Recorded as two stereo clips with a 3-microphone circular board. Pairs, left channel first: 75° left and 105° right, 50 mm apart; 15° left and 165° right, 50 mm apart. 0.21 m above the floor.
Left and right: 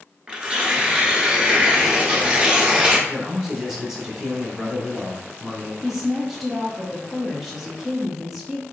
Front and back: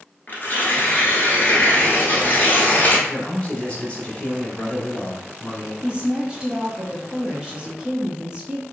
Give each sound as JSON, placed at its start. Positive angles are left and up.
{"t": 0.3, "sound": "tearing paper", "azimuth_deg": -35, "distance_m": 1.2}
{"t": 3.1, "sound": "a man speaking", "azimuth_deg": -25, "distance_m": 1.2}
{"t": 5.8, "sound": "a woman speaking", "azimuth_deg": 175, "distance_m": 1.1}